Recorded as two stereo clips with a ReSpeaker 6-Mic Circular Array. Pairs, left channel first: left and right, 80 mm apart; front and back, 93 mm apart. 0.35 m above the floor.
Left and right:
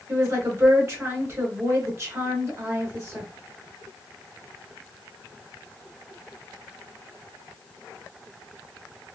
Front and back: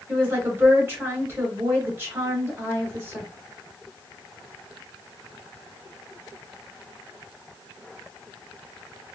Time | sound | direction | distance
0.1 | a woman speaking | 130° right | 1.9 m